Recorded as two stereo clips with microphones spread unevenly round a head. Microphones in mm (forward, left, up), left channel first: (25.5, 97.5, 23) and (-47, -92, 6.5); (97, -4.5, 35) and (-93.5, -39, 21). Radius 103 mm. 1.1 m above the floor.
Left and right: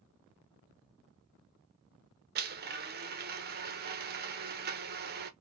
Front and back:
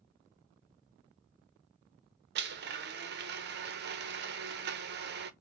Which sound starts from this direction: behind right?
A blender, at 2.4 s.